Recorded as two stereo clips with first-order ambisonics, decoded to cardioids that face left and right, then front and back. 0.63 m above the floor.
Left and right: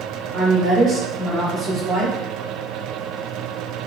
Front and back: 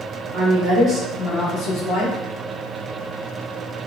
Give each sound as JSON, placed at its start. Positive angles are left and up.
{"t": 0.3, "sound": "a woman speaking", "azimuth_deg": -175, "distance_m": 0.9}